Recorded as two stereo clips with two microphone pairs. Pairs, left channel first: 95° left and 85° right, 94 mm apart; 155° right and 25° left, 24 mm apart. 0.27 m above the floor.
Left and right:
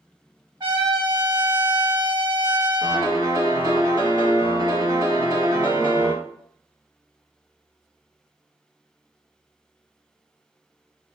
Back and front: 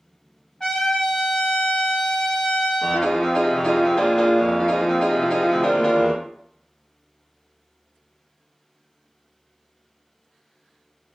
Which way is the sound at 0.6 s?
100° right.